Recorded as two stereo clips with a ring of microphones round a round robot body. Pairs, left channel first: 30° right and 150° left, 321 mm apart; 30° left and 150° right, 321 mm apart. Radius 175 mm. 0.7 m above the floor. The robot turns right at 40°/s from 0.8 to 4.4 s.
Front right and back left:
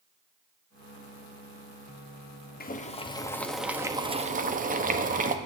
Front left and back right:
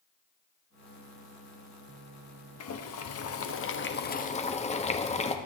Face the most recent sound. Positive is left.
turn(degrees=95)